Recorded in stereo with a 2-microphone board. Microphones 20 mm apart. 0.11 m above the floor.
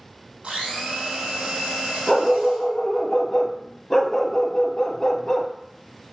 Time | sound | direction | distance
0.4 | a blender | 70° right (ahead or behind) | 3.5 m
2.1 | a dog barking | 30° left (ahead or behind) | 0.9 m